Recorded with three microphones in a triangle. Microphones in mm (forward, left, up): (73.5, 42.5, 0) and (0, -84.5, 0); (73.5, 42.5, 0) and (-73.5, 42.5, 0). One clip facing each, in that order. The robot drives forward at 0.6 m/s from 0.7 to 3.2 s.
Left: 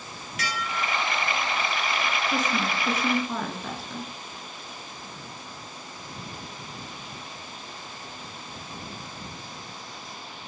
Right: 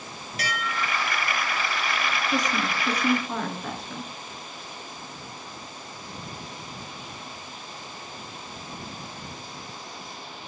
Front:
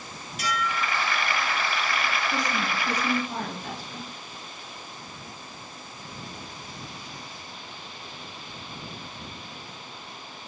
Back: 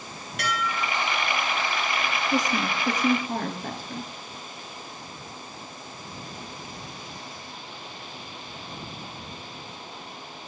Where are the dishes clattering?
170° right, 3 m.